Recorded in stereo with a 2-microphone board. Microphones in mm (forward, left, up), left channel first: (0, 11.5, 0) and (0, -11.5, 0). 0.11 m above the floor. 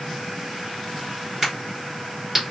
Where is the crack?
20° right (ahead or behind), 1.8 m.